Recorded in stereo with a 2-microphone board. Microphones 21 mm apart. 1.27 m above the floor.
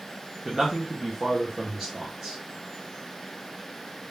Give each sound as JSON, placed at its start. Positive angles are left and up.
{"t": 0.5, "sound": "a man speaking", "side_deg": -30, "distance_m": 1.0}